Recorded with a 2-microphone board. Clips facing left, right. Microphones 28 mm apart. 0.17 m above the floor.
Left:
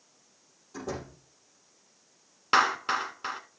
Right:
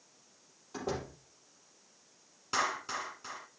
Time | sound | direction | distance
0.7 | a door slam | 25° right (ahead or behind) | 4 m
2.5 | a clap | 50° left (ahead or behind) | 1.3 m